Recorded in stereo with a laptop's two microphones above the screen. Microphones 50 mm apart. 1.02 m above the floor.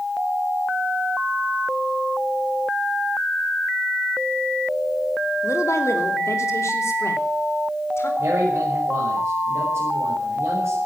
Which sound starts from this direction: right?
A man speaking, at 8.2 s.